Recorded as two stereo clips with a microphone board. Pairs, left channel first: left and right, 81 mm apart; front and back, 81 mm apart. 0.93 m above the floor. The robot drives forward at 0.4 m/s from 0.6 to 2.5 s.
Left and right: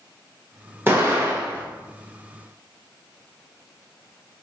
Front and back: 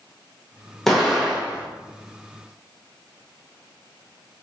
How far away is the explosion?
About 0.7 m.